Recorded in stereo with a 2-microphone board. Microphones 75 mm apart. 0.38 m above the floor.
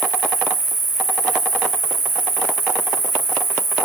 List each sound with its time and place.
0.0 s an insect: 30° left (ahead or behind), 2.5 m